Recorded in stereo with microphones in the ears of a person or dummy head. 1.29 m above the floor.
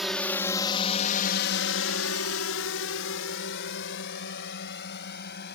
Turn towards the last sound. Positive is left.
turn(degrees=60)  # may be behind; listen again after turning